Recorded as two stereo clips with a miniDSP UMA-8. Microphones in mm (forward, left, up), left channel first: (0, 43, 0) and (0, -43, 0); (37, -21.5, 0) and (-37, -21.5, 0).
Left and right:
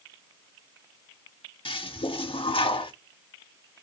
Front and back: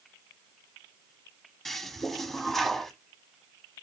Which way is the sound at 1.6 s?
85° left.